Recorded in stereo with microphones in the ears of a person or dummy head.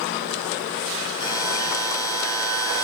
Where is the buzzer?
25° left (ahead or behind), 3.5 m.